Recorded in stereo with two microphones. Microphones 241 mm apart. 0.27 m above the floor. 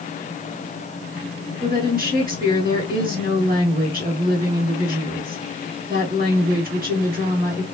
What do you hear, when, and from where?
1.6 s a woman speaking: 40° right (ahead or behind), 2.5 m